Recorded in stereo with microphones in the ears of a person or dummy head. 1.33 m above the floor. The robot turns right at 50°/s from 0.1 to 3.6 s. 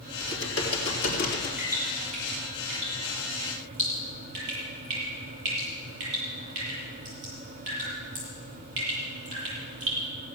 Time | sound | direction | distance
0.2 | typing on a keyboard | 70° left | 3.5 m
1.6 | dripping | 10° right (ahead or behind) | 8.5 m